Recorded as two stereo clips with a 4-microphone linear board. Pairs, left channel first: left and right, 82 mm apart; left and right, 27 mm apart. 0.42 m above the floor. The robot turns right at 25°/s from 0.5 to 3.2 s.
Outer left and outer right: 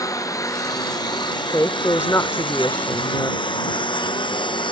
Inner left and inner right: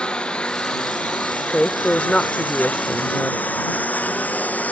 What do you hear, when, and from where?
0.0 s a lawn mower: 45° left (ahead or behind); by 4.7 s 75° left (ahead or behind)
1.5 s a woman speaking: 85° left; by 3.4 s 125° left